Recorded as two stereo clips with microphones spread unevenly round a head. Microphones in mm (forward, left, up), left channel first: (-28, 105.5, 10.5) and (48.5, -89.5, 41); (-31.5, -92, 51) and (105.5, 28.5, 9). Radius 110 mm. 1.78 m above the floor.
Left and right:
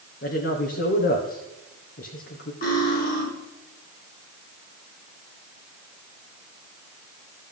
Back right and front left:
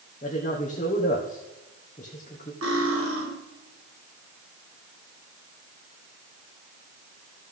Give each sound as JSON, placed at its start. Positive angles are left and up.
{"t": 0.2, "sound": "a woman speaking", "azimuth_deg": 160, "distance_m": 1.4}
{"t": 2.6, "sound": "cutlery clinking", "azimuth_deg": 60, "distance_m": 5.0}